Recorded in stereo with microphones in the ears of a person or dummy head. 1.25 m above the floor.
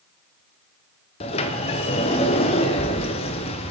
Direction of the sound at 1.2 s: 30° left (ahead or behind).